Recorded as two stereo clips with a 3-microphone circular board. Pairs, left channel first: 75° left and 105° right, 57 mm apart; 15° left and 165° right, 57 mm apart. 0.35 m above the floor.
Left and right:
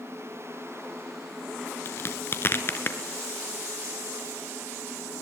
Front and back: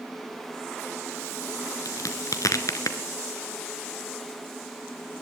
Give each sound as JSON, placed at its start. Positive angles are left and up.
{"t": 1.9, "sound": "a crack", "azimuth_deg": 30, "distance_m": 1.7}